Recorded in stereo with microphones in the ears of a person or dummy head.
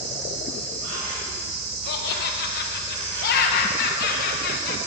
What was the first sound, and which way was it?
An insect, 70° right (ahead or behind).